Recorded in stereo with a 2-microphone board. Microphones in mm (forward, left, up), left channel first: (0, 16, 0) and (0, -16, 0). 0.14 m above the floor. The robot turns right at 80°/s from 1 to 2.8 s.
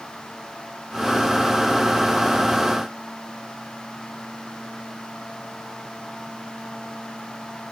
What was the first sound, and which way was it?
Only background noise.